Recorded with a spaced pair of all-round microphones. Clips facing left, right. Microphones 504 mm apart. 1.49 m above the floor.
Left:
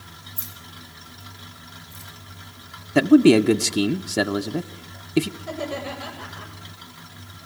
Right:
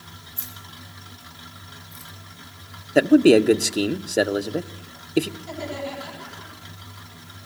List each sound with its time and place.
0.4 s keys jangling: 75° left (ahead or behind), 5 m; by 2.1 s 65° left (ahead or behind), 4.5 m
3.0 s a man speaking: 25° left (ahead or behind), 0.9 m
5.4 s laughter: 90° left, 9 m